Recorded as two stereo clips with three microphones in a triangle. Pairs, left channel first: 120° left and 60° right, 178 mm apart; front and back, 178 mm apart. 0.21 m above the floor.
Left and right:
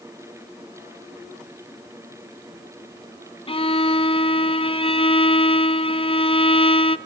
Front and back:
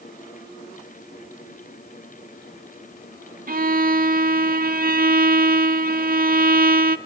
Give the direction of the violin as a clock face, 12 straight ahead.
6 o'clock.